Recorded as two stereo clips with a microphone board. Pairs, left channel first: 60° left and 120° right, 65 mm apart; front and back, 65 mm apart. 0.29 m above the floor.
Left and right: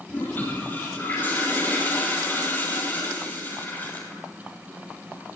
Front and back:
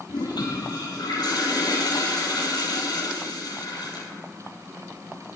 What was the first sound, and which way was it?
A toilet flushing, straight ahead.